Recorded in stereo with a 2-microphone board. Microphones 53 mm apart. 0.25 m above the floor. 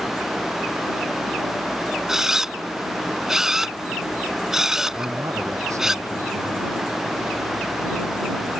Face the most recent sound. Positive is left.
turn(degrees=-80)